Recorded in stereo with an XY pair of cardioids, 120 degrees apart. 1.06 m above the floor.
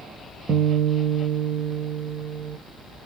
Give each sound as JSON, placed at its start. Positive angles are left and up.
{"t": 0.5, "sound": "a guitar", "azimuth_deg": -40, "distance_m": 0.5}